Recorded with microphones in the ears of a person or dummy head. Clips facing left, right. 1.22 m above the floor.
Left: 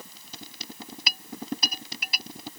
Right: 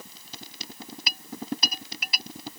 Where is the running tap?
I don't hear a running tap.